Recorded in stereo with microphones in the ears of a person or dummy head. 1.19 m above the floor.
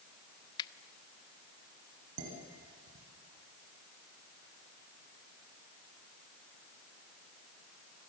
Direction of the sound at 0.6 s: 25° left (ahead or behind).